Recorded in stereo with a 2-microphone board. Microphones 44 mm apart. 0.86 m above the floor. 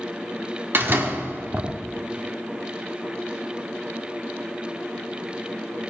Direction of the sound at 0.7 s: 50° right (ahead or behind).